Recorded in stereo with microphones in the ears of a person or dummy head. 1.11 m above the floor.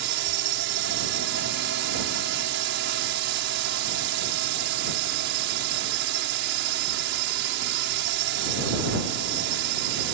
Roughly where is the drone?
Right.